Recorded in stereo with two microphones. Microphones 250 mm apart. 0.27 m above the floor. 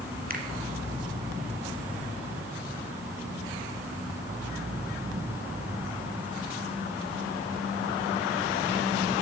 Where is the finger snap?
35° right (ahead or behind), 2 m.